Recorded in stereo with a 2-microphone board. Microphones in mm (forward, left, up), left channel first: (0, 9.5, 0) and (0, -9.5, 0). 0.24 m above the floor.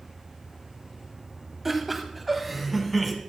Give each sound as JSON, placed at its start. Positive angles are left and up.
{"t": 1.6, "sound": "laughter", "side_deg": -15, "distance_m": 1.0}